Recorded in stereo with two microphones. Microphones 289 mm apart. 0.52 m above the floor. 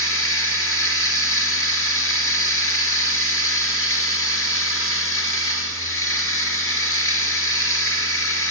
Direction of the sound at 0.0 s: 50° left (ahead or behind).